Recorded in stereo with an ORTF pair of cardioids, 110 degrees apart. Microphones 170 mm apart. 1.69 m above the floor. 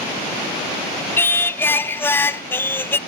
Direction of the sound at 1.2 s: 10° left.